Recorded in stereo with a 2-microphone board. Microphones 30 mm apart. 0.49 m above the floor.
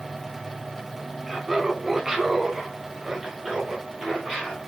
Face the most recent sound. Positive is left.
turn(degrees=-5)  # may be behind; listen again after turning